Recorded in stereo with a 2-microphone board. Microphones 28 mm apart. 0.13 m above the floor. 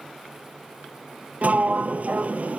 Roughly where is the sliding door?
Right.